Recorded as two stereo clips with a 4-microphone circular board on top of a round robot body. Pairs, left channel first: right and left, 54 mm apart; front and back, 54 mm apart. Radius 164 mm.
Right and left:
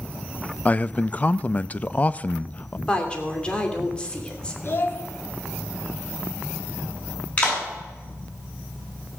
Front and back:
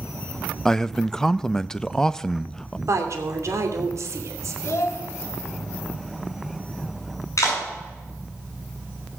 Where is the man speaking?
70° right, 0.6 m.